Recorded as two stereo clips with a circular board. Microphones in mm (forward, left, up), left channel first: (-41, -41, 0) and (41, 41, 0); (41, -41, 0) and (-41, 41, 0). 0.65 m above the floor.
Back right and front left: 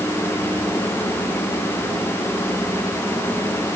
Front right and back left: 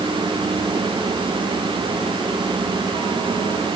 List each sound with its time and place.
Only background noise.